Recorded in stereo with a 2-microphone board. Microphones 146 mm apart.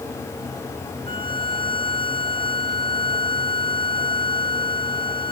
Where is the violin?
80° right.